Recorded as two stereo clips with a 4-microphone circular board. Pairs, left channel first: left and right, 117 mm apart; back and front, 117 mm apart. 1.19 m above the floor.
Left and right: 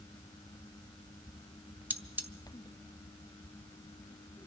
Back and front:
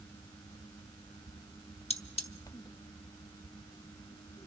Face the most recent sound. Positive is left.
turn(degrees=-165)